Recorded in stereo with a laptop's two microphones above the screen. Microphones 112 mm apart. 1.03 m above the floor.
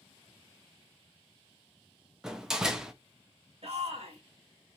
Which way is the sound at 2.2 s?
5° right (ahead or behind).